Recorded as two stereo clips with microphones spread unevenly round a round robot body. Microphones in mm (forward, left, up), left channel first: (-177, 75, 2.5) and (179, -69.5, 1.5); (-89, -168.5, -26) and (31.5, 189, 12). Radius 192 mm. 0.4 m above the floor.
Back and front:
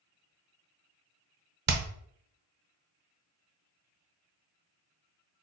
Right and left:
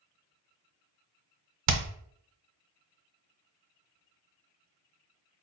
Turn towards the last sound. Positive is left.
turn(degrees=35)